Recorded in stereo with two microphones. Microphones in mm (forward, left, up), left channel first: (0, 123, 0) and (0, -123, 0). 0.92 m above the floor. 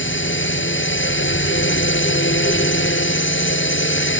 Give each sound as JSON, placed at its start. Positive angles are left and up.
{"t": 0.0, "sound": "a drone", "side_deg": 50}